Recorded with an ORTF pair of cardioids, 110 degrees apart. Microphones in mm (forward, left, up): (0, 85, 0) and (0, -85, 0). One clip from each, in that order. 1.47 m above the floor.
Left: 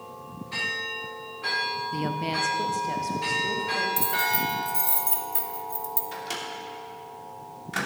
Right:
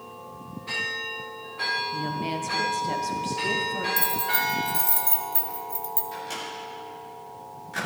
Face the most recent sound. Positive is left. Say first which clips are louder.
# even
turn(degrees=40)